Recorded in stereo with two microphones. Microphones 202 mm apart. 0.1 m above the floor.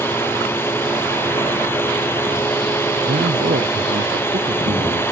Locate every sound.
0.0 s a drone: 10° left (ahead or behind)
3.0 s a man speaking: 50° right (ahead or behind)